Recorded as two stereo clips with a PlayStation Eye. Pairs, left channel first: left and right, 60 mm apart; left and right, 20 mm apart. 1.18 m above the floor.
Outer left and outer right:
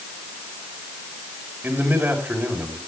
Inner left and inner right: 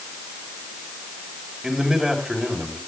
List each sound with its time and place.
1.6 s a man speaking: 35° right (ahead or behind), 4 m